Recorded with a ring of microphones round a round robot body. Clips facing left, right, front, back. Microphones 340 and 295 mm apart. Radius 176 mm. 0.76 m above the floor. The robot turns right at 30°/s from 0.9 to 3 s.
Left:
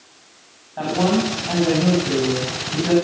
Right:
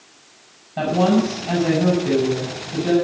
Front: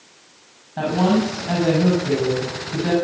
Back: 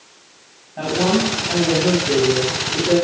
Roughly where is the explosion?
No explosion in this recording.